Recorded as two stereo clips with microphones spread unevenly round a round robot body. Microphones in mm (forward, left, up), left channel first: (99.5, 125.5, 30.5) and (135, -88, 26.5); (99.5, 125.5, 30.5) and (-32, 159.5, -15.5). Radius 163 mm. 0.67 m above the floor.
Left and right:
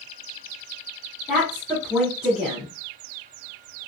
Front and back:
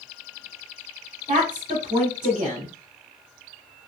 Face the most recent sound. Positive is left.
turn(degrees=-165)